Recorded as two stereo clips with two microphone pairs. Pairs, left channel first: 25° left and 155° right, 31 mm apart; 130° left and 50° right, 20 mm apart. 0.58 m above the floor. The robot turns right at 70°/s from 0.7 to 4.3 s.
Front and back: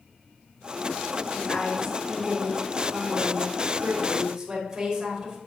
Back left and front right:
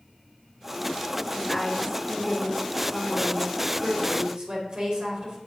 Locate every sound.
1.3 s a woman speaking: 65° left, 3 m; by 5.4 s 85° right, 3 m